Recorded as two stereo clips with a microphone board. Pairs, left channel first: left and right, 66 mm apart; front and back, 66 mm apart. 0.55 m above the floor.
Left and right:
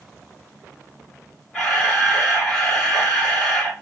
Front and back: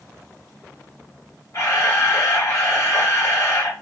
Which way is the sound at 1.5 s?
5° left.